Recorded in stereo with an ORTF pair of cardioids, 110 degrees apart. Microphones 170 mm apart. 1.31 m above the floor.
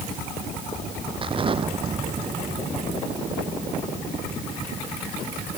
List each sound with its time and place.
1.2 s an explosion: 30° right